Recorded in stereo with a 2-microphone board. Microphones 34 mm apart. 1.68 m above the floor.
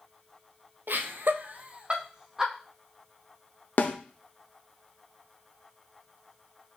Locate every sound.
0.9 s laughter: 80° right, 0.7 m; by 2.5 s 10° right (ahead or behind), 1.1 m
3.8 s a snare drum: 60° left (ahead or behind), 0.6 m